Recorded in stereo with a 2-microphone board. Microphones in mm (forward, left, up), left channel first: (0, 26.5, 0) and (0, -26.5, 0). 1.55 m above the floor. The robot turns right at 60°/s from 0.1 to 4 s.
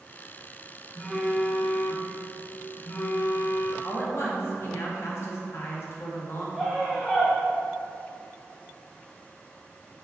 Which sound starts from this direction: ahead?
A phone buzzing, at 0.9 s.